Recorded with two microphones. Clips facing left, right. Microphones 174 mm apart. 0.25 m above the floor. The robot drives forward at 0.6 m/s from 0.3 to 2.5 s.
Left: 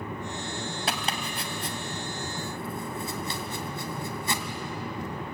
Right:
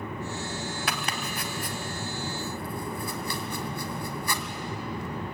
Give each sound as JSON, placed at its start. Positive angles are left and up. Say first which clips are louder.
{"t": 0.9, "sound": "chopping", "louder": "left 1 dB", "side_deg": 30, "distance_m": 1.8}